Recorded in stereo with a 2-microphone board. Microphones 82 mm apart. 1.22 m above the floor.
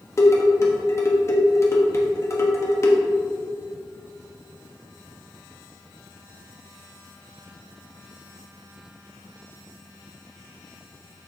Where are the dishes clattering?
35° left (ahead or behind), 1.1 m.